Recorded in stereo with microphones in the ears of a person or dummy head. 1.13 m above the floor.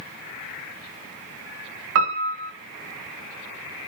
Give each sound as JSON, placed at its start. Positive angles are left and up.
{"t": 1.9, "sound": "a piano", "side_deg": -70, "distance_m": 1.9}